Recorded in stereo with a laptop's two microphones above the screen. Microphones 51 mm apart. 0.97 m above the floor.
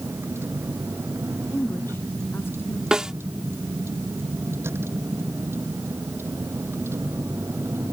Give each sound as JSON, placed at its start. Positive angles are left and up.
{"t": 0.0, "sound": "a vehicle", "side_deg": -60}
{"t": 1.5, "sound": "a woman speaking", "side_deg": 45}
{"t": 2.9, "sound": "a snare drum", "side_deg": -15}